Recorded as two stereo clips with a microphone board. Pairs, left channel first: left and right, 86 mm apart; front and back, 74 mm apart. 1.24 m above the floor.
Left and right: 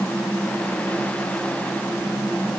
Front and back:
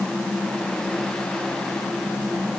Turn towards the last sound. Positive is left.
No sound to turn to.